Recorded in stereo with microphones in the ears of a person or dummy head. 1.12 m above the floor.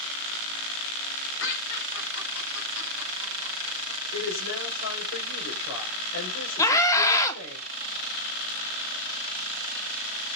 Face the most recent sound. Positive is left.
turn(degrees=20)  # may be behind; listen again after turning